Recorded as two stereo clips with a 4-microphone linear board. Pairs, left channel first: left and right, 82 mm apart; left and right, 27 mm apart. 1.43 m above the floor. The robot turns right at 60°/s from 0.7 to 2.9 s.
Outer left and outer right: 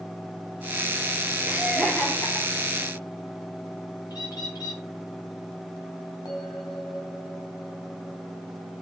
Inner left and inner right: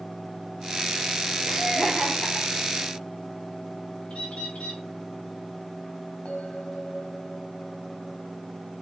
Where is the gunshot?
No gunshot in this recording.